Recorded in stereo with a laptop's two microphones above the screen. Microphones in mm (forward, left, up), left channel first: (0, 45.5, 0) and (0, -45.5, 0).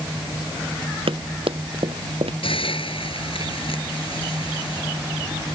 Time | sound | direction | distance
1.1 | running footsteps | 75° right (ahead or behind) | ?
2.4 | a hiss | 75° left (ahead or behind) | ?